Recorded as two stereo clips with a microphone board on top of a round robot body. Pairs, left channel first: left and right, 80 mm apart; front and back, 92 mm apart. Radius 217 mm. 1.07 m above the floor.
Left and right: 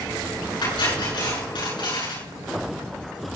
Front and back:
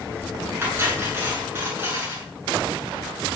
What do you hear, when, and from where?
0.6 s cutlery clinking: 115° left, 8.5 m